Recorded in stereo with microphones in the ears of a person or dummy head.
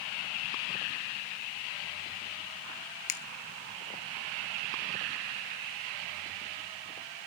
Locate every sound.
3.1 s a finger snap: 40° left (ahead or behind), 0.6 m